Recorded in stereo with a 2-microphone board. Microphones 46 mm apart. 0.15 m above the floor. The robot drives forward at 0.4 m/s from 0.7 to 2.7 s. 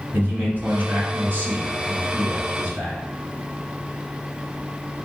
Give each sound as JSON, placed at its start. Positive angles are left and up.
{"t": 0.1, "sound": "a man speaking", "side_deg": -45, "distance_m": 1.6}